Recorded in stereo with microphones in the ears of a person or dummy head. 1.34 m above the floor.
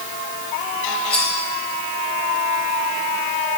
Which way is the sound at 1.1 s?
15° left (ahead or behind).